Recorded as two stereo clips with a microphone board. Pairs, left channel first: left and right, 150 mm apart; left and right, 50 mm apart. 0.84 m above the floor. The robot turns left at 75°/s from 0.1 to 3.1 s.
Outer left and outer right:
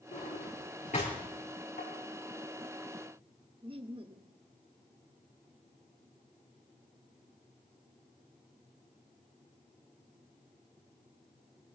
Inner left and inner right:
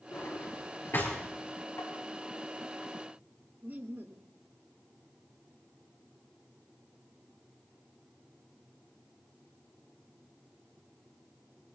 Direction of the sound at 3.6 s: 35° right (ahead or behind).